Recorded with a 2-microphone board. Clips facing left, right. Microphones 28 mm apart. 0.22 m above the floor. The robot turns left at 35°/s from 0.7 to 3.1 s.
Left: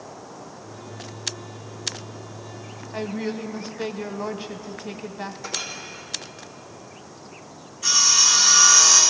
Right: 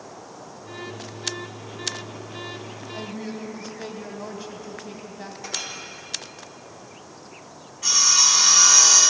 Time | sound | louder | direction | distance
2.9 | a woman speaking | left 6 dB | 30° left (ahead or behind) | 1.1 m
5.4 | a clink | right 1 dB | 20° right (ahead or behind) | 4 m
7.8 | sawing | even | 20° right (ahead or behind) | 6 m